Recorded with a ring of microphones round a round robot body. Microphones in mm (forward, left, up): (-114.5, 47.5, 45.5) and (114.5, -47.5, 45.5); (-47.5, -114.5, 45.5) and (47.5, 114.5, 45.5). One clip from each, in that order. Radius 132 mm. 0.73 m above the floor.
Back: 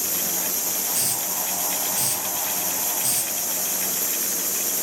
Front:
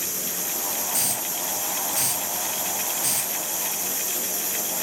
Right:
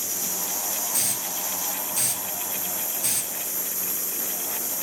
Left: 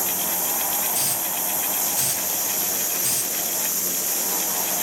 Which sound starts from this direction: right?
A hiss, at 0.9 s.